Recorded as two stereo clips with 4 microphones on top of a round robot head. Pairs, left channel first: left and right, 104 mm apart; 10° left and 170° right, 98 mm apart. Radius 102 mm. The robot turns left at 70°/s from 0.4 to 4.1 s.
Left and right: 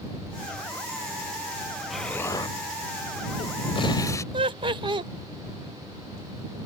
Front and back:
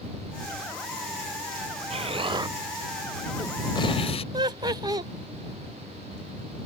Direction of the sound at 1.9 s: Straight behind.